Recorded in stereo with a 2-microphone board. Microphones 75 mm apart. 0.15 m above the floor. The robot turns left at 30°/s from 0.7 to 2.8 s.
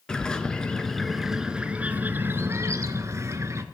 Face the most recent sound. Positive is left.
turn(degrees=-50)